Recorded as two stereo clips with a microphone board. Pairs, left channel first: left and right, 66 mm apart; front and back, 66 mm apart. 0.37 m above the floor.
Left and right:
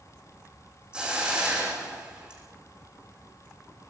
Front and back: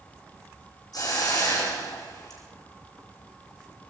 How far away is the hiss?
About 8.5 m.